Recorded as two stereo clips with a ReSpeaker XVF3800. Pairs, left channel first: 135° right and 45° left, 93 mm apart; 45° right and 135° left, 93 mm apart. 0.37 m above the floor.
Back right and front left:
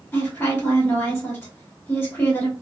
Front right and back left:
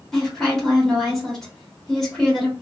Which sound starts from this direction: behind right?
A woman speaking, at 0.1 s.